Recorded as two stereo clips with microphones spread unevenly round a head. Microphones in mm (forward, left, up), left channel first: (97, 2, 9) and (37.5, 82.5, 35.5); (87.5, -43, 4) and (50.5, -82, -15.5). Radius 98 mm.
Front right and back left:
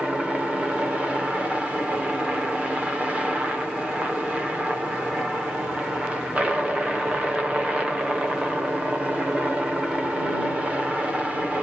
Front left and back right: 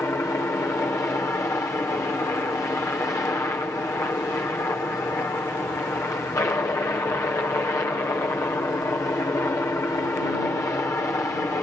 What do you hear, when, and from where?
0.0 s a helicopter: 35° left